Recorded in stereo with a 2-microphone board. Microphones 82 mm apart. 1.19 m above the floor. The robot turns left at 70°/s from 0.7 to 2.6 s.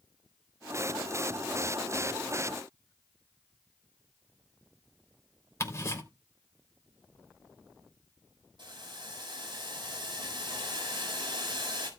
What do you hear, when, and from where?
5.6 s ticking: 35° left (ahead or behind), 3.5 m
8.6 s boiling: 65° right (ahead or behind), 5 m